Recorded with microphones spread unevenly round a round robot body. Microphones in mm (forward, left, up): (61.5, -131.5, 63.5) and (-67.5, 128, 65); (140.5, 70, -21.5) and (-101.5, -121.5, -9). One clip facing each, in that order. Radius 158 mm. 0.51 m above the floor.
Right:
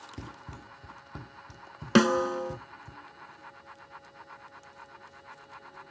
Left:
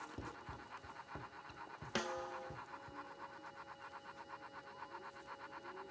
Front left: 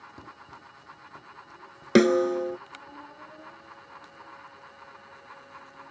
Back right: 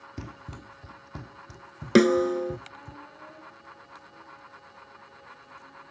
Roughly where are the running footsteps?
Behind right.